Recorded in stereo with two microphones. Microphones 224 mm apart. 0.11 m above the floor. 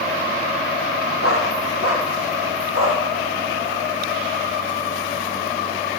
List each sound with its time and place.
1.2 s a dog barking: 75° left (ahead or behind), 7 m